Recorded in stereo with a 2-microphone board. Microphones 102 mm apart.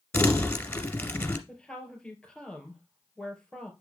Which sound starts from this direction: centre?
A woman speaking, at 1.5 s.